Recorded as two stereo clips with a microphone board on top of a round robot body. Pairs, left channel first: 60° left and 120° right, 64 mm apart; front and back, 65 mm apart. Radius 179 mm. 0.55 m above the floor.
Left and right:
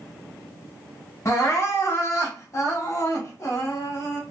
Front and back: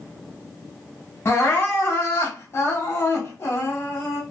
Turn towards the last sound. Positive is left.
turn(degrees=35)